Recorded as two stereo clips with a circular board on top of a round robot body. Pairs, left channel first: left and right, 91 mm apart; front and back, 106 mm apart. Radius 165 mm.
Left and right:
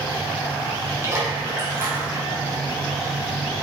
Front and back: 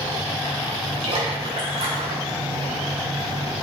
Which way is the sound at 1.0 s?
150° right.